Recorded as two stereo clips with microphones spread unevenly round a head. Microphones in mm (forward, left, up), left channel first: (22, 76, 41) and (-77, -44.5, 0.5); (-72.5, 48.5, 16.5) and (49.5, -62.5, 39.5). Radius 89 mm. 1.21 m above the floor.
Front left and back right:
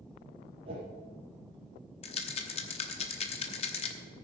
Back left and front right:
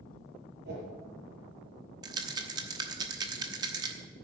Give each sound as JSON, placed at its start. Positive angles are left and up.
{"t": 0.7, "sound": "a whoosh", "azimuth_deg": -65, "distance_m": 5.0}
{"t": 2.0, "sound": "a rattle", "azimuth_deg": 15, "distance_m": 1.0}